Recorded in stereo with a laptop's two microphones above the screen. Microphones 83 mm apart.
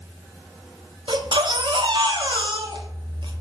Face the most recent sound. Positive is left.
turn(degrees=-70)  # may be behind; listen again after turning